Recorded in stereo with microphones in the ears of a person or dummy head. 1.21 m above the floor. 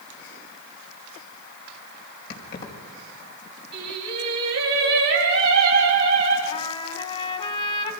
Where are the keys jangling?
65° left (ahead or behind), 4.5 m.